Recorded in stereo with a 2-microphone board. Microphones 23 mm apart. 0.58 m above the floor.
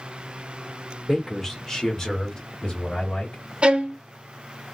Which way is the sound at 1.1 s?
5° left (ahead or behind).